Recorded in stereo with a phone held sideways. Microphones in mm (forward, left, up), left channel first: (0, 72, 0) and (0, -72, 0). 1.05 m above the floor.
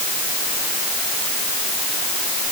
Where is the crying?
I don't hear crying.